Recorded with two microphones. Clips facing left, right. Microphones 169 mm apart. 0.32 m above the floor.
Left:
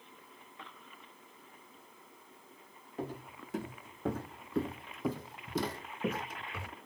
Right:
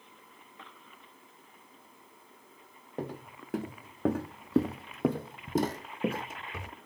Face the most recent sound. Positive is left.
turn(degrees=-15)  # may be behind; listen again after turning